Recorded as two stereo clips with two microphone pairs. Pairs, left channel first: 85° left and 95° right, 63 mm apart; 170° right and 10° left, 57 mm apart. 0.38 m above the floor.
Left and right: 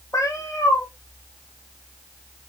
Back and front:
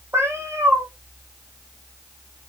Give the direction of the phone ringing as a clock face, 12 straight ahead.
No phone ringing in this recording.